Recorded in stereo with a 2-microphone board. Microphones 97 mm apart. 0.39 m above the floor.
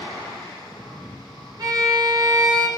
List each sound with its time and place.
1.6 s a violin: 45° right (ahead or behind), 2.5 m